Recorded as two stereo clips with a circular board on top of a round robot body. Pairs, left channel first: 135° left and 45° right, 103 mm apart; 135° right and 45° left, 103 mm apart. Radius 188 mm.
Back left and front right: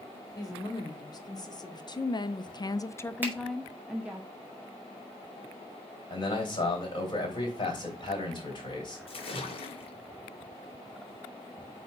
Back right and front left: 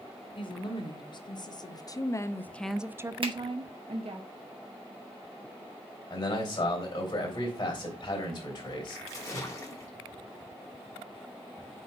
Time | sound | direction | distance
0.3 | a woman speaking | 175° right | 1.9 m
3.2 | a finger snap | 25° left | 1.9 m
6.1 | a man speaking | straight behind | 3 m
9.1 | a splash | 165° left | 1.9 m